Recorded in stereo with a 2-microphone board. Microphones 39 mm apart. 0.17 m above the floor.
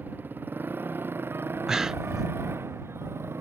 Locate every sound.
0.0 s a motorcycle: 50° right (ahead or behind); by 3.4 s 85° right
1.7 s breathing: 15° right (ahead or behind)